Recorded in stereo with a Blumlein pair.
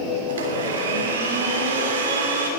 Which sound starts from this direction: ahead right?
A blender, at 0.3 s.